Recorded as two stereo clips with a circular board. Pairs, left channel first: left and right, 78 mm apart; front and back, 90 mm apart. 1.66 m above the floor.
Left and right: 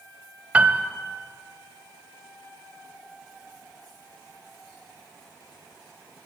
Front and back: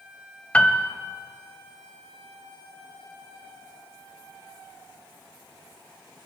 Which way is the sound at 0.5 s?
50° right.